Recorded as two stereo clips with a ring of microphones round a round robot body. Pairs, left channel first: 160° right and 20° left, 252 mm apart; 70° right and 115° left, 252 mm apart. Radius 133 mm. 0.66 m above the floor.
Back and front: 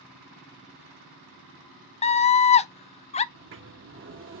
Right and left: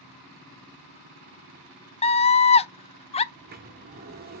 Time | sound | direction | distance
2.0 | a scream | 115° right | 0.6 m
3.3 | a sliding door | 60° left | 1.0 m